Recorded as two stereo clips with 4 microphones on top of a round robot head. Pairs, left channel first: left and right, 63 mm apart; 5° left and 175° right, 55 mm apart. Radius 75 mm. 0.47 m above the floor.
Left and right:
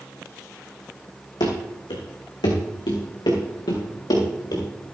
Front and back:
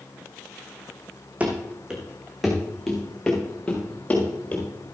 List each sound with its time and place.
1.4 s running footsteps: 120° left, 2 m; by 4.6 s 70° left, 4.5 m